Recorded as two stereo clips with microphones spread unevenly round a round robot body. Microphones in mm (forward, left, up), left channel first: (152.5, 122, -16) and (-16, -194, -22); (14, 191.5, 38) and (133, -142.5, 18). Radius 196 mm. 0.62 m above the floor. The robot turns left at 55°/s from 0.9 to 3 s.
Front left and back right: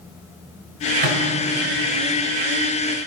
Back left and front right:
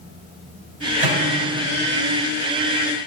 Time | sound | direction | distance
1.0 | a microwave | 80° right | 3 m